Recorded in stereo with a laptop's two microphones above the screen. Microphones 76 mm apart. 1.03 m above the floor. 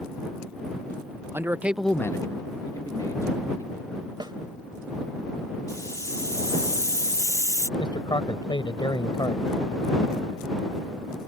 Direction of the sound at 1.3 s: 35° right (ahead or behind).